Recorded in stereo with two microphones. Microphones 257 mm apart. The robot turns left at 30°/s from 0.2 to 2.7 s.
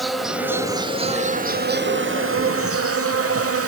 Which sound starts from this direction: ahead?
An insect, at 0.0 s.